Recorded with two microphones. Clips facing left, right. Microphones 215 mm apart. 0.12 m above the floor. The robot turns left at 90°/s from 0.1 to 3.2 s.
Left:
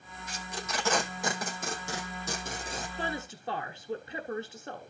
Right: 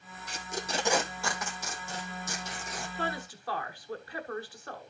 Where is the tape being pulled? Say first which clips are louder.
Right 3 dB; 65° right (ahead or behind), 1.6 m; by 2.9 s 15° left (ahead or behind), 1.6 m.